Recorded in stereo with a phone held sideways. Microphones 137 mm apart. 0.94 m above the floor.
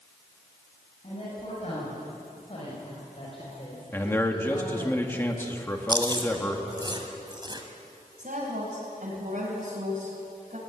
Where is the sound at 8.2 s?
75° right (ahead or behind), 4.5 m.